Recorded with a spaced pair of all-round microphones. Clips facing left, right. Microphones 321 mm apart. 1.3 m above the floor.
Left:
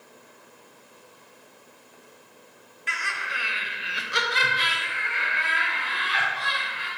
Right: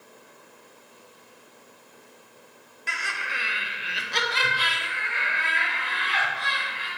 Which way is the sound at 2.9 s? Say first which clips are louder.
Even; 55° right (ahead or behind).